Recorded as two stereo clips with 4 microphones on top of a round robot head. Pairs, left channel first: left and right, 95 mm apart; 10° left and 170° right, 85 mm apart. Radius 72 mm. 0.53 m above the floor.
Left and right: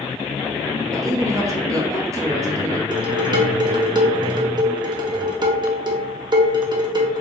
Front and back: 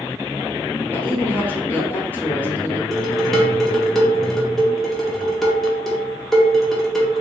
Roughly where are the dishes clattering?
Right.